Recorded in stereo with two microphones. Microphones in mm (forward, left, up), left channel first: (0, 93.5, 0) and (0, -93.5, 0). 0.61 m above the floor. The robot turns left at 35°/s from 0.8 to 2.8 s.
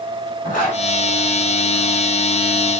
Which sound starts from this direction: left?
A zipper, at 0.4 s.